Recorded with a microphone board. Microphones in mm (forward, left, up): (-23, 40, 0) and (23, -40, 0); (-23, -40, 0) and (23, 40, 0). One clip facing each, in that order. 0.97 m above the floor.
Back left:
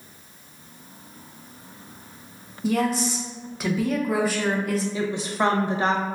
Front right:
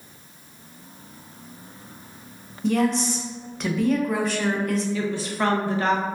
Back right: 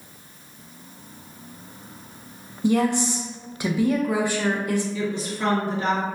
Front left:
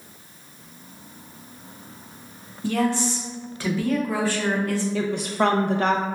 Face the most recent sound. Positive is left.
turn(degrees=50)